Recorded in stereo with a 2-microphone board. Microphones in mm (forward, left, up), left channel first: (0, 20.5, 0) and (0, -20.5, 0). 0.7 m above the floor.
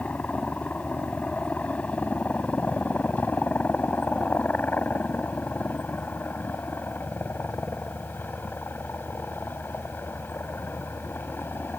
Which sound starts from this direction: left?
A helicopter, at 0.0 s.